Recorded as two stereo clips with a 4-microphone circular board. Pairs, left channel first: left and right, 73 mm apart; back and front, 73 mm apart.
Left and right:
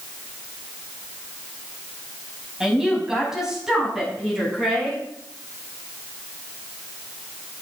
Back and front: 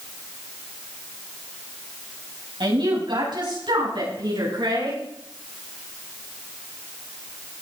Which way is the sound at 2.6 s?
5° right.